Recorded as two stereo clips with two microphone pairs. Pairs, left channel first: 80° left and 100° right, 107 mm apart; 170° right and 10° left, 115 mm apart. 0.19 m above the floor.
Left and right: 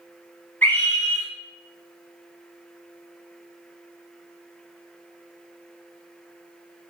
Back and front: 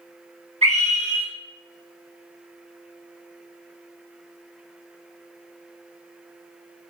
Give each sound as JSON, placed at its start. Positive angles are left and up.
{"t": 0.6, "sound": "a scream", "azimuth_deg": 5, "distance_m": 3.5}